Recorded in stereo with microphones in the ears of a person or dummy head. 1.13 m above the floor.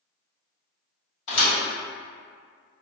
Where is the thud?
65° left (ahead or behind), 1.7 m.